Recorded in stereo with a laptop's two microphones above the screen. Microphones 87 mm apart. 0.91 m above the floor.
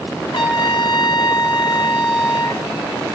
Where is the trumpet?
65° left (ahead or behind), 1.3 m.